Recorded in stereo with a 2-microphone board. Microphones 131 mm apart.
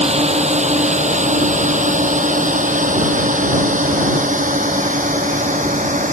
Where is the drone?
55° right (ahead or behind); by 6.1 s 70° right (ahead or behind).